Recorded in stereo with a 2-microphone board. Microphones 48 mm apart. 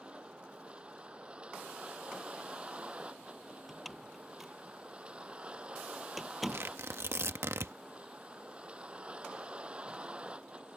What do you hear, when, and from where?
0.0 s a vehicle: 25° right (ahead or behind)
3.7 s a door slam: centre (ahead or behind)
6.5 s tearing paper: 65° right (ahead or behind)